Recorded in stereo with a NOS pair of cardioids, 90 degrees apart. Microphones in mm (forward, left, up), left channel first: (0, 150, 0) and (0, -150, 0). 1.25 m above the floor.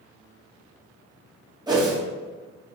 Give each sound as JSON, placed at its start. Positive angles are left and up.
{"t": 1.7, "sound": "a whoosh", "azimuth_deg": -15, "distance_m": 2.0}